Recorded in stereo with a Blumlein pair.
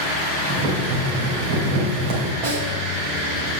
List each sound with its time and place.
0.5 s boiling: 50° right, 3 m
2.4 s a snare drum: 50° right, 3.5 m